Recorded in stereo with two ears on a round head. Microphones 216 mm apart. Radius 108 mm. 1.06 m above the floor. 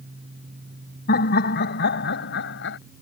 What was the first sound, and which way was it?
Laughter, 40° left (ahead or behind).